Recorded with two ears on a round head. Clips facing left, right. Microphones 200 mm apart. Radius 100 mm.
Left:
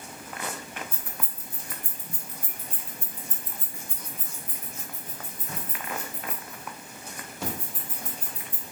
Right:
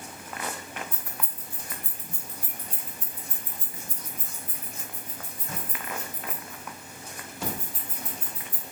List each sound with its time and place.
0.9 s keys jangling: 50° left (ahead or behind), 1.4 m; by 8.6 s 55° right (ahead or behind), 3.5 m